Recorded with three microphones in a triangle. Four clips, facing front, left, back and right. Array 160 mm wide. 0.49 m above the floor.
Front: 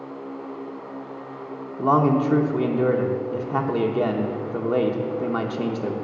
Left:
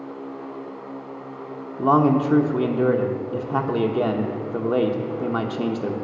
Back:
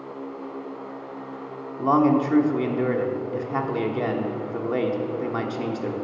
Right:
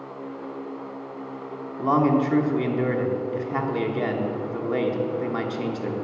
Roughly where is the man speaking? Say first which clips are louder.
Left 3 dB, even; left.